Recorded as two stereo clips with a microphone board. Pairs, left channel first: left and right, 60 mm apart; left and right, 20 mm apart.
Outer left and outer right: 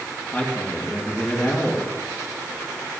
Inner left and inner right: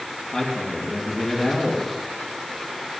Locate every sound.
0.3 s a man speaking: 10° left (ahead or behind), 2.5 m